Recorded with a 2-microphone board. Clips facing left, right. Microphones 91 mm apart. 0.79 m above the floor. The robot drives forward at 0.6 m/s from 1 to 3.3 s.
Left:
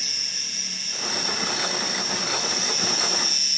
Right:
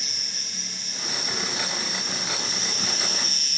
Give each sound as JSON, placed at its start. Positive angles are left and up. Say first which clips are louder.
{"t": 0.0, "sound": "an insect", "louder": "left 1 dB", "side_deg": -25, "distance_m": 3.0}